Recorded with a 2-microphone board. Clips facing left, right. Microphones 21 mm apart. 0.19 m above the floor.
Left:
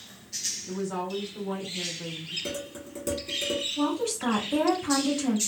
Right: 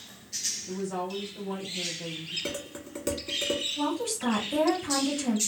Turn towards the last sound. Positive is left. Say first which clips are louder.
# left 2 dB
turn(degrees=20)  # may be behind; listen again after turning